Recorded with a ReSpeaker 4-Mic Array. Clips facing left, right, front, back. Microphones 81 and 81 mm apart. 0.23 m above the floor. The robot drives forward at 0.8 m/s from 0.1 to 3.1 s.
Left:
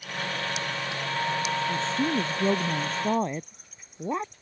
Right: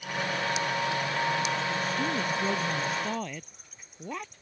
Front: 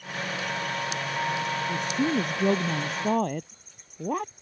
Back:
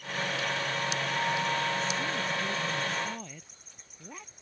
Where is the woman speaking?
25° left; by 4.3 s 30° left.